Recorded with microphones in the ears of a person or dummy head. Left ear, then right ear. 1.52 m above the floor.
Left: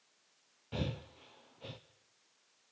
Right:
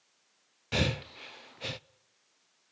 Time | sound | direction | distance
0.7 | breathing | 65° right (ahead or behind) | 0.6 m